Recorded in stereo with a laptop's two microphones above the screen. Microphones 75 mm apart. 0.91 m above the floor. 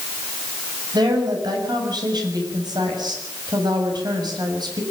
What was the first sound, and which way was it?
A woman speaking, 70° right (ahead or behind).